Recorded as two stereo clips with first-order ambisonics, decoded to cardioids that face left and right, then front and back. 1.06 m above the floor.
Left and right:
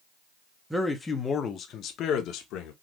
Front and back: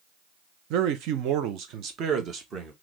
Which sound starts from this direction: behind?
A man speaking, at 0.7 s.